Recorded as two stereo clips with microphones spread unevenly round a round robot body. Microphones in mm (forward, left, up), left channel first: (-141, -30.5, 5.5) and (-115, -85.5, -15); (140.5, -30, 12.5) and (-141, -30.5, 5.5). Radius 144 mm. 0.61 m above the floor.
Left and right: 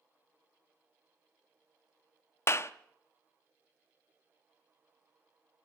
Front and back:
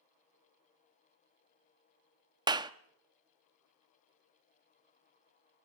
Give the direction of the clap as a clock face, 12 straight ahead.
8 o'clock.